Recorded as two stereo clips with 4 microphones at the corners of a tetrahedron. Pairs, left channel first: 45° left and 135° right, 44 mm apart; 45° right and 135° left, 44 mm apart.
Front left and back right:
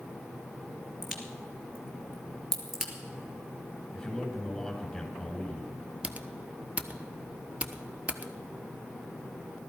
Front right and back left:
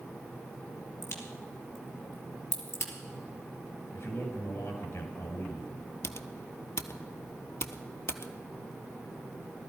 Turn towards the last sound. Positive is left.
turn(degrees=-75)